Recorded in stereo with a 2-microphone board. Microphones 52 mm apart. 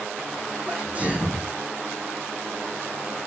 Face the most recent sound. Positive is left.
turn(degrees=-30)  # may be behind; listen again after turning